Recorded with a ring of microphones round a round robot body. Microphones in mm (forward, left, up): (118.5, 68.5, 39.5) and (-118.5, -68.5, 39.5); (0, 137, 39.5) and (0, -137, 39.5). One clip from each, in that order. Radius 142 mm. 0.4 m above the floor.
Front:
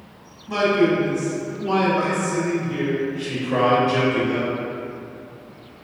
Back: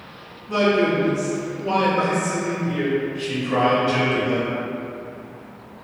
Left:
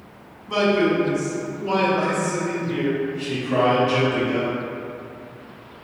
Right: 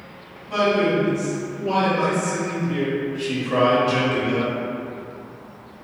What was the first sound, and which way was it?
A man speaking, 50° left.